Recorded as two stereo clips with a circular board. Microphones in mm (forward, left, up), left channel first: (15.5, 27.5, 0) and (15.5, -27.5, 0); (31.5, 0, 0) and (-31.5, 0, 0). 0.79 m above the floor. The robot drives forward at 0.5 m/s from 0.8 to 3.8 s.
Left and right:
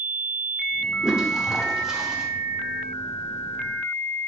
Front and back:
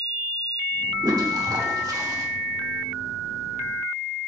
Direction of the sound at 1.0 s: 165° right.